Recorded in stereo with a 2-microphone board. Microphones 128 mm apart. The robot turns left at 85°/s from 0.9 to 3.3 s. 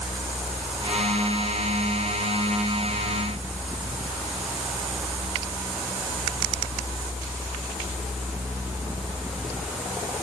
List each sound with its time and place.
Only background noise.